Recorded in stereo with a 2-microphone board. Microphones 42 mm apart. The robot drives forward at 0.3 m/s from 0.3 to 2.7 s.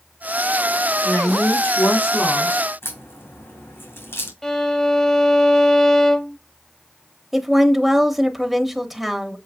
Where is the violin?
10° left (ahead or behind), 0.5 m.